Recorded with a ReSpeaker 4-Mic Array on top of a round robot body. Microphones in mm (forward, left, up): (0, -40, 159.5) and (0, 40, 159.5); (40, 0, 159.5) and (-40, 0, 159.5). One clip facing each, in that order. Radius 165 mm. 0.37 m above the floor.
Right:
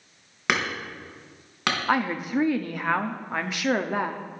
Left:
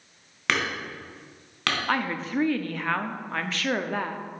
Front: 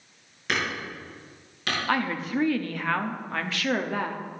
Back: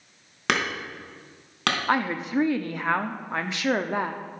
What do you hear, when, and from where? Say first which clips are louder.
0.5 s hammering: right 1 dB, back 3 dB; 165° right, 3.5 m
1.9 s a woman speaking: right 4 dB, back 1 dB; 145° right, 1.0 m